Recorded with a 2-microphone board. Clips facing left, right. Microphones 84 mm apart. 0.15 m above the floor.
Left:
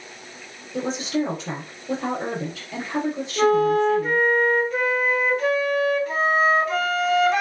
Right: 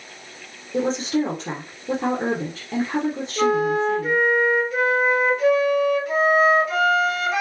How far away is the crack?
I don't hear a crack.